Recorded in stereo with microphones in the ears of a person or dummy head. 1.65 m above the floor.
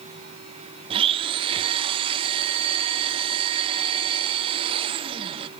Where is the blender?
25° right (ahead or behind), 0.6 m.